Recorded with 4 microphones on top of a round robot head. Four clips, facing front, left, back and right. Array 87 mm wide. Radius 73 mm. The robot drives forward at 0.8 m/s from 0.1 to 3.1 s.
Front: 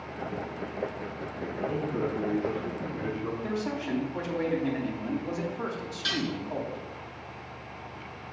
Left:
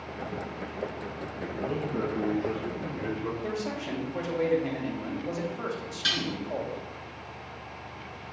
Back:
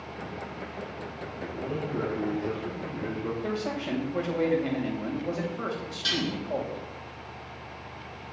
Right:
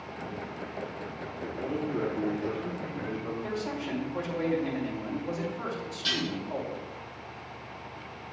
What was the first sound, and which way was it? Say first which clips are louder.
A man speaking: left 1 dB, front 2 dB; 90° left.